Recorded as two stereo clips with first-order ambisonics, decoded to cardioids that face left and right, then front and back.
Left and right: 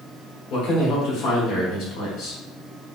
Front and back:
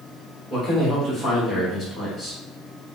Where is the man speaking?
110° left, 1.6 m.